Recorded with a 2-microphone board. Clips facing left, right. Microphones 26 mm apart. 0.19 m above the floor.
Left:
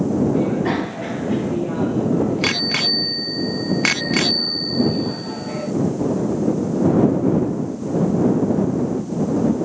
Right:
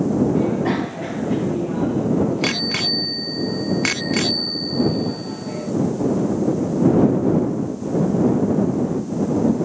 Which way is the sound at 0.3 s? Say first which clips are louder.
Even; 5° left (ahead or behind).